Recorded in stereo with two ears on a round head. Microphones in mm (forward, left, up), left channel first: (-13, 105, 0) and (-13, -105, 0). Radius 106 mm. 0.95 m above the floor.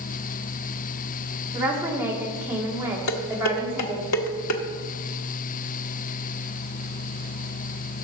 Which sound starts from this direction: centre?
A woman speaking, at 1.5 s.